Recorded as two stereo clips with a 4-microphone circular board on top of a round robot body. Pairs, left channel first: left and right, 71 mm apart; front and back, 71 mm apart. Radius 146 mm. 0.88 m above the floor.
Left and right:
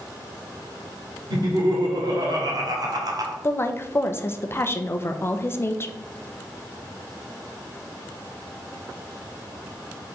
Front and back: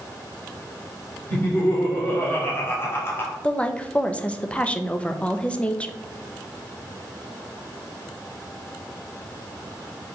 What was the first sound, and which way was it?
Laughter, 65° right.